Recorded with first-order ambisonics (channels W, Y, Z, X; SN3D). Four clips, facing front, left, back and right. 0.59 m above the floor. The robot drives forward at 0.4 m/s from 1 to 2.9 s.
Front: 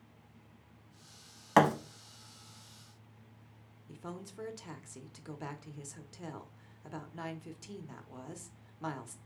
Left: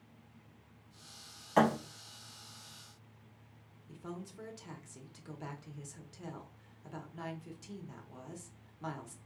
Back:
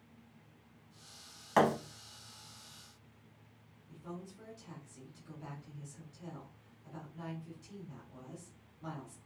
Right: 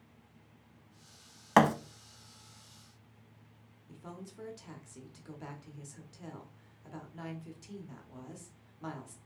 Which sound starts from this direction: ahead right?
A thud, at 1.6 s.